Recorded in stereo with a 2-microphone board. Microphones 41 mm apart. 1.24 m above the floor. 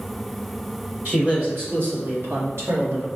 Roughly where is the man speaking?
Right.